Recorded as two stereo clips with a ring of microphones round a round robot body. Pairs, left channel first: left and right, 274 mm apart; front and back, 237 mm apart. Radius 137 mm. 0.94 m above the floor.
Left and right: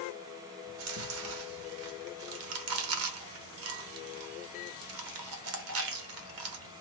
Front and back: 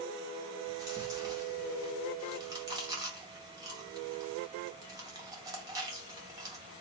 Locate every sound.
0.7 s chewing: 105° right, 0.6 m